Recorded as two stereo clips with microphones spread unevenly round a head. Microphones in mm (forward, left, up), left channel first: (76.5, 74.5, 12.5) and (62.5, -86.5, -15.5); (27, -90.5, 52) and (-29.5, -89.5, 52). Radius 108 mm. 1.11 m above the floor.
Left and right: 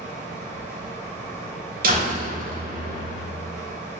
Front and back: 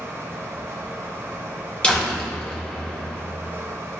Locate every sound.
0.0 s a fan: 165° left, 1.7 m
1.8 s a door slam: 75° right, 2.5 m